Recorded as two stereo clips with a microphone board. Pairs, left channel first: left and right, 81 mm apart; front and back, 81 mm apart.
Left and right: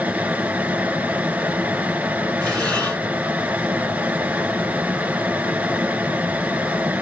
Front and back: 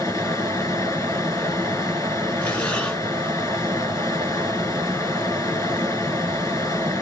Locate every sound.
0.0 s running water: 25° right, 1.6 m
2.4 s breathing: 45° left, 1.6 m